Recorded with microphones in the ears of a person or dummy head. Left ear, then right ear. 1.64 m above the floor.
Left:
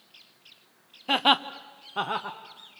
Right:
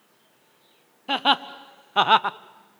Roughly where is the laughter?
Centre.